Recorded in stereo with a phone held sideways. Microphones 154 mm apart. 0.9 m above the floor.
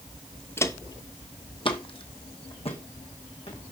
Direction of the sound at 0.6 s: 15° left (ahead or behind).